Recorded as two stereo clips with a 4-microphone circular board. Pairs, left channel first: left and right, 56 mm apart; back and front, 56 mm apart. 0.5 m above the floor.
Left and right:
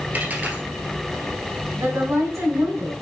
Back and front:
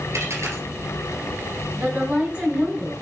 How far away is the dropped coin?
About 1.9 m.